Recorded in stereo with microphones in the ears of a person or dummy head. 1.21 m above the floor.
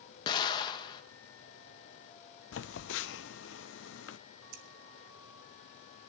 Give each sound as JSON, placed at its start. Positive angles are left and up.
{"t": 0.3, "sound": "an explosion", "side_deg": 25, "distance_m": 0.9}
{"t": 2.5, "sound": "a phone buzzing", "side_deg": 65, "distance_m": 0.5}
{"t": 4.5, "sound": "scissors", "side_deg": -55, "distance_m": 1.1}